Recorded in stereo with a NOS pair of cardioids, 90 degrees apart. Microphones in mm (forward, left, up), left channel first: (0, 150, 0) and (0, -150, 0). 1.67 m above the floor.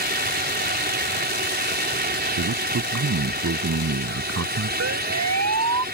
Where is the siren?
60° right.